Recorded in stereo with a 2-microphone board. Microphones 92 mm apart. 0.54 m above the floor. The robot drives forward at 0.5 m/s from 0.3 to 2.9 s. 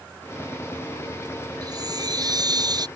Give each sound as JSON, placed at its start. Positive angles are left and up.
{"t": 1.6, "sound": "a chime", "side_deg": -45}